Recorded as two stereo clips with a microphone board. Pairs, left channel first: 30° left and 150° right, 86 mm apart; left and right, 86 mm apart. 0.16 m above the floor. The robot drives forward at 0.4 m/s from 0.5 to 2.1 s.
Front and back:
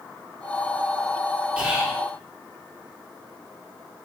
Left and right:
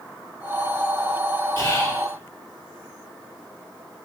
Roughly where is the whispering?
Behind left.